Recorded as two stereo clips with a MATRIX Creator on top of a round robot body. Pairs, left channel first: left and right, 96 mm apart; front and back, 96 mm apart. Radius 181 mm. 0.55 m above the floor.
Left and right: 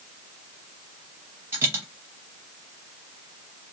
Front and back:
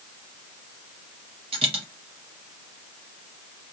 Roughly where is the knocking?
I don't hear knocking.